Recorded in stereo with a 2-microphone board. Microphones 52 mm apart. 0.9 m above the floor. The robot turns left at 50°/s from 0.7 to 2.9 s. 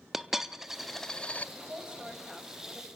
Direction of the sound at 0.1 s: 5° right (ahead or behind).